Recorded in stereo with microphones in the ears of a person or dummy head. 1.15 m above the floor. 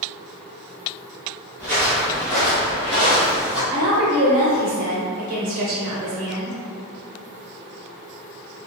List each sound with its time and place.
1.6 s footsteps: 5° right (ahead or behind), 1.1 m
3.7 s a woman speaking: 40° right (ahead or behind), 0.9 m